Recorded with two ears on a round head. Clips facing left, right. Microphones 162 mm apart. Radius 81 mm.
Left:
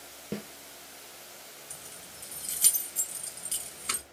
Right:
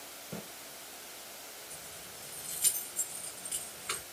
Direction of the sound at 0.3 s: 70° left (ahead or behind).